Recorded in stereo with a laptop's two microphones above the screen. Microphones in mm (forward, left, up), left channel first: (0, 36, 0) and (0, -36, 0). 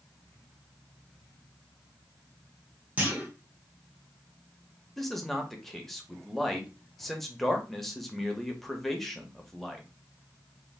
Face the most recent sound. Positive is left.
turn(degrees=5)  # may be behind; listen again after turning